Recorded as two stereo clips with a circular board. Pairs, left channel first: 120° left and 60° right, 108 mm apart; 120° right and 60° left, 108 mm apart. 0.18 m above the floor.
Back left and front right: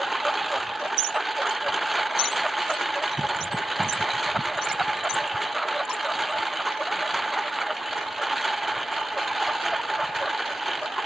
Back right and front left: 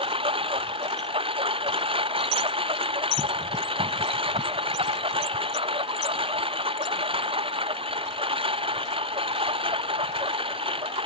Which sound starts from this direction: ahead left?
A lawn mower, at 0.0 s.